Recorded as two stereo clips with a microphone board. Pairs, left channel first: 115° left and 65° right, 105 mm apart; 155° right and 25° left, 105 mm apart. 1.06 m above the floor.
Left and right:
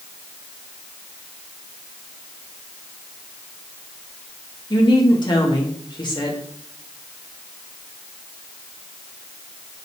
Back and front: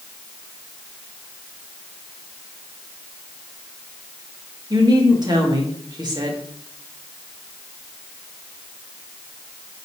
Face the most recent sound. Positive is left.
turn(degrees=70)